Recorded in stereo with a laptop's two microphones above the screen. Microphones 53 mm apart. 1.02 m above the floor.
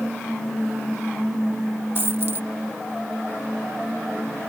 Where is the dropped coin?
45° right (ahead or behind).